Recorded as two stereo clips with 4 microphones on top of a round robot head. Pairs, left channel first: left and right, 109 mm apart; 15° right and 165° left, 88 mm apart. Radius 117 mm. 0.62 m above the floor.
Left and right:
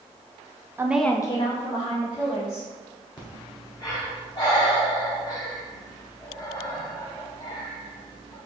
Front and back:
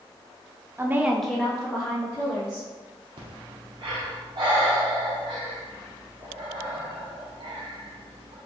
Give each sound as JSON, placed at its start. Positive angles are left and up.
{"t": 0.8, "sound": "a woman speaking", "azimuth_deg": -145, "distance_m": 0.6}
{"t": 3.2, "sound": "breathing", "azimuth_deg": 140, "distance_m": 0.8}